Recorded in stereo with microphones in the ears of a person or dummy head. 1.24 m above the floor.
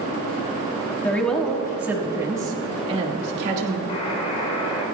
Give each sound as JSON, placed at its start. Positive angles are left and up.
{"t": 1.0, "sound": "a woman speaking", "side_deg": 5, "distance_m": 1.7}
{"t": 3.9, "sound": "a buzzer", "side_deg": 30, "distance_m": 3.5}